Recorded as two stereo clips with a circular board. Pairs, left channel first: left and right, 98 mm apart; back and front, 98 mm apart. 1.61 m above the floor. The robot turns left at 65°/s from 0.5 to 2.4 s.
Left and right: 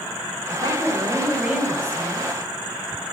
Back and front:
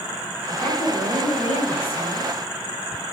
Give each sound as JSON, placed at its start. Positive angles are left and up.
{"t": 0.5, "sound": "a woman speaking", "azimuth_deg": -110, "distance_m": 8.5}